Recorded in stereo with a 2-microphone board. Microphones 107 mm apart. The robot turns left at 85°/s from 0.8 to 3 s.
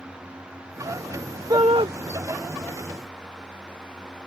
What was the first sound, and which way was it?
A shout, 40° right.